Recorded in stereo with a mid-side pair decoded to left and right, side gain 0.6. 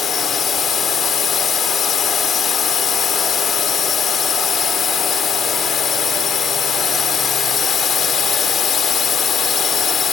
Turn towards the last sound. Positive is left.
turn(degrees=40)